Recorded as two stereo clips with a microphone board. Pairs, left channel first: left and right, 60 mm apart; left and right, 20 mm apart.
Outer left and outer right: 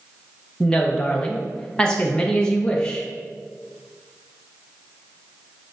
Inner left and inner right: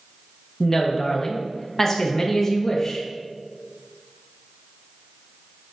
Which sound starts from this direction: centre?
A woman speaking, at 0.6 s.